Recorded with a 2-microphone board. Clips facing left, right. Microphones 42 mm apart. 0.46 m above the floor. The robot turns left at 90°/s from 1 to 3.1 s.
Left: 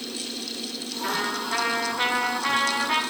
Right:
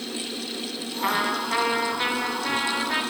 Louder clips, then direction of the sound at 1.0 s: Right 3 dB; 110° right.